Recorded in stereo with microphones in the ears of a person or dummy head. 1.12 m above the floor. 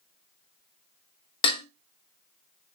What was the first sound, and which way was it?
Dishes clattering, 30° left (ahead or behind).